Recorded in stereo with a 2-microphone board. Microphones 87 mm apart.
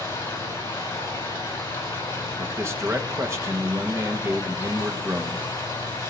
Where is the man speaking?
30° right (ahead or behind), 1.3 m.